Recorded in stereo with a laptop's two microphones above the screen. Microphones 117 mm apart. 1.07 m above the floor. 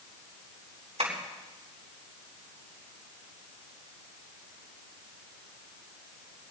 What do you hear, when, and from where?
1.0 s tapping: 65° right (ahead or behind), 3.5 m